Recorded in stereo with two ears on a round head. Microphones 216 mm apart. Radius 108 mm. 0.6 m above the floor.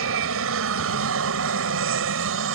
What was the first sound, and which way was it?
An aircraft, 60° right (ahead or behind).